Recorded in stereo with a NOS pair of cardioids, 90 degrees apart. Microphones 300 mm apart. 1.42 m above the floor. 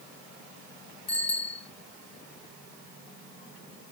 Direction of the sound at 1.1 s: 55° left.